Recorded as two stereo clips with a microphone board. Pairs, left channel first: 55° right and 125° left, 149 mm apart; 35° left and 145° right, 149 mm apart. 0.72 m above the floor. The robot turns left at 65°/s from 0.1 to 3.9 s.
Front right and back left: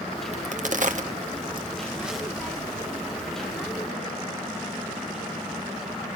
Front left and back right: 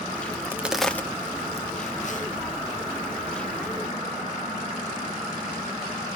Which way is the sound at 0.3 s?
155° left.